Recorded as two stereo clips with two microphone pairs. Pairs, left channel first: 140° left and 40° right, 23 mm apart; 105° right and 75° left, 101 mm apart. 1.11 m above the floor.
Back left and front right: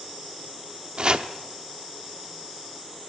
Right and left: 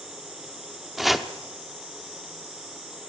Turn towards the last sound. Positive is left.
turn(degrees=-15)